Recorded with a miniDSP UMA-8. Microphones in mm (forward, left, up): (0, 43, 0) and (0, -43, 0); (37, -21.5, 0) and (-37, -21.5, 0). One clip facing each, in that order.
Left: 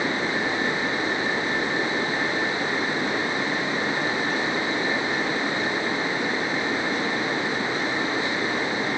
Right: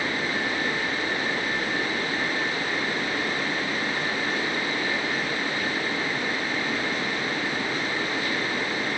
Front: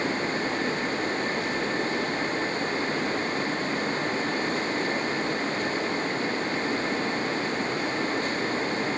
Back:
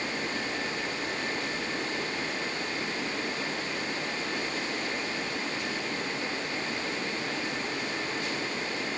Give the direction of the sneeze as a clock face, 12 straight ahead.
No sneeze in this recording.